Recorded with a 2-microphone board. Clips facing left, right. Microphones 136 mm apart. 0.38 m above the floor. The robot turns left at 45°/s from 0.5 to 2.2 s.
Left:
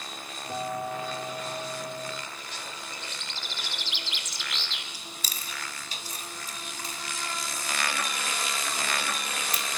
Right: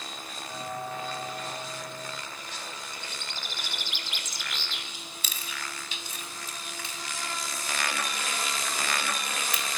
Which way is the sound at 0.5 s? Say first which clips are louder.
Left 4 dB; 40° left.